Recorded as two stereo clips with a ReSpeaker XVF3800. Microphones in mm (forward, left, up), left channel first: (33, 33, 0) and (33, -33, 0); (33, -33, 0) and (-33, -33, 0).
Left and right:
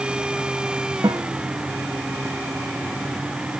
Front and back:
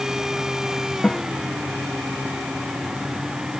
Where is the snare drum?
75° right.